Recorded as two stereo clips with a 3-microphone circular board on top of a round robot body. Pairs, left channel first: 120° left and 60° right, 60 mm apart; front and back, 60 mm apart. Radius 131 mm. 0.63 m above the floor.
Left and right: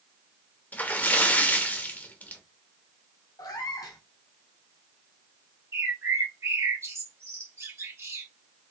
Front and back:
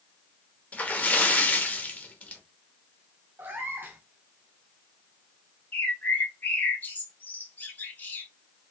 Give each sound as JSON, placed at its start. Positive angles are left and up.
{"t": 0.7, "sound": "a splash", "azimuth_deg": 60, "distance_m": 0.8}
{"t": 3.4, "sound": "a cat meowing", "azimuth_deg": 120, "distance_m": 0.5}
{"t": 5.7, "sound": "a bird", "azimuth_deg": -50, "distance_m": 1.2}